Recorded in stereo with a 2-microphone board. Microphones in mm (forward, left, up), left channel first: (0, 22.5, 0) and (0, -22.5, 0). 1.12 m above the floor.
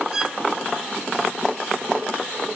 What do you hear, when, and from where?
0.1 s a violin: 15° right (ahead or behind)